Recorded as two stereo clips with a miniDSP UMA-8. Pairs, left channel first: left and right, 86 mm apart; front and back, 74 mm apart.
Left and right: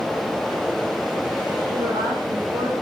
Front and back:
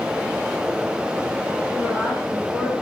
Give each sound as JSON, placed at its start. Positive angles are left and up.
{"t": 1.7, "sound": "a woman speaking", "azimuth_deg": -95, "distance_m": 8.0}